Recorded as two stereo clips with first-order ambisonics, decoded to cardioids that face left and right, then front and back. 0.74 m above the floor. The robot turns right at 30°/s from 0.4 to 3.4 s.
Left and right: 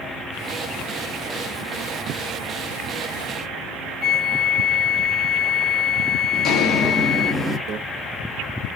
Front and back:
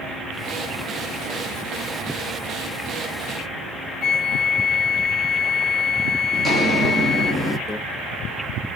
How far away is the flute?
About 0.6 m.